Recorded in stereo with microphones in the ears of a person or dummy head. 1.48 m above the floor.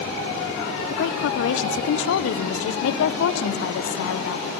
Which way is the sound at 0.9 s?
75° left (ahead or behind).